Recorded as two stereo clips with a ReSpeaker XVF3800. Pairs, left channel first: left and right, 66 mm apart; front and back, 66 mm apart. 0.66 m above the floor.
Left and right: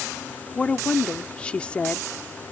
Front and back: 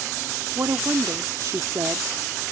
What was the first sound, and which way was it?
A woman speaking, 160° left.